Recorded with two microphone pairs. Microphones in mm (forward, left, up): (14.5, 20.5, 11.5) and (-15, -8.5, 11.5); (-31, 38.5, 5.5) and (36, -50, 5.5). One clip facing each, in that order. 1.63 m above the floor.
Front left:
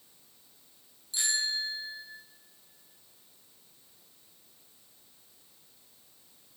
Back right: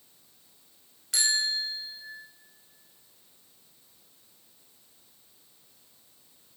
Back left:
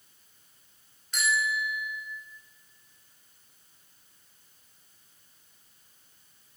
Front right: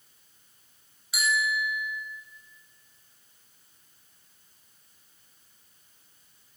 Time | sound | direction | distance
1.1 | a bicycle bell | 135° right | 7 m